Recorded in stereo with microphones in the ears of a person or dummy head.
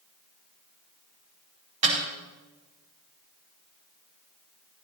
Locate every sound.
1.8 s a snare drum: 40° right (ahead or behind), 5 m